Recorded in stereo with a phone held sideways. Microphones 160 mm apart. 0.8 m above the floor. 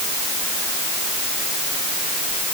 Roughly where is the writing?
I don't hear writing.